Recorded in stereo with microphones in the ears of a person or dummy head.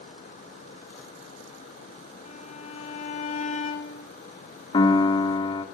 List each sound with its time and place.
2.2 s a violin: 45° left (ahead or behind), 2 m
4.7 s a piano: 30° left (ahead or behind), 2 m